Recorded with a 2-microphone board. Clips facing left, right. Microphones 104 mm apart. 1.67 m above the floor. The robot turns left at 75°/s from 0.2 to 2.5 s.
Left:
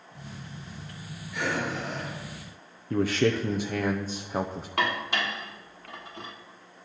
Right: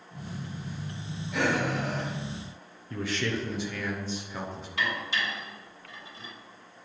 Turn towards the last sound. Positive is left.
turn(degrees=60)  # may be behind; listen again after turning